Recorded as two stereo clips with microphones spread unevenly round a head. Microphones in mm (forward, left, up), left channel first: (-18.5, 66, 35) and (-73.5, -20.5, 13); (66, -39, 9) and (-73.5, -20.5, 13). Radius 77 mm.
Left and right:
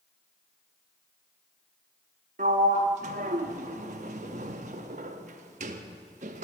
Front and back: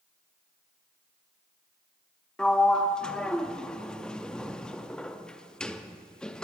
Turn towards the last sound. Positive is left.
turn(degrees=-90)